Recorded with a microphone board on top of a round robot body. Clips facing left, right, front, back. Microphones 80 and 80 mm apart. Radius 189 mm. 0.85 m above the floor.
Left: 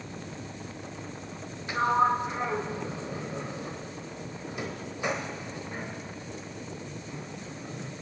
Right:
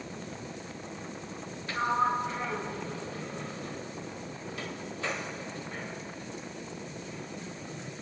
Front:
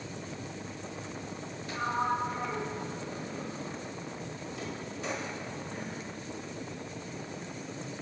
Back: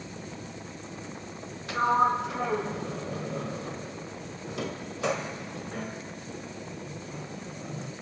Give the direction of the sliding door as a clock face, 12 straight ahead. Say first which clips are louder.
Left 4 dB, back 7 dB; 7 o'clock.